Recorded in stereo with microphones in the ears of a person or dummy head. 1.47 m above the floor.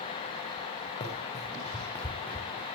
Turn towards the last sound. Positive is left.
turn(degrees=0)  # may be behind; listen again after turning